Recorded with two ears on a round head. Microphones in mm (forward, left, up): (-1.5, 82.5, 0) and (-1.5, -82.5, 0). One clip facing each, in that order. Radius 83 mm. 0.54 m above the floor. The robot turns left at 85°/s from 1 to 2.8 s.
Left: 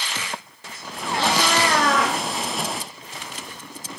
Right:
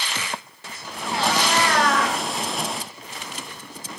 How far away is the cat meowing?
About 5 m.